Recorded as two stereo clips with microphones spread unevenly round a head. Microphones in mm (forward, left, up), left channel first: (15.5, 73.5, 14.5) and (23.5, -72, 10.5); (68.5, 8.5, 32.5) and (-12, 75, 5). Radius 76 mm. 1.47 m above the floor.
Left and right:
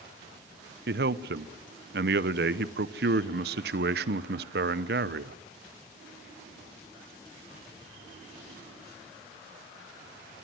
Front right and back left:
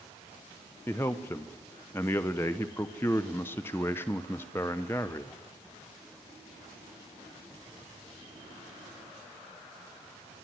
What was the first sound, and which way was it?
A man speaking, 115° right.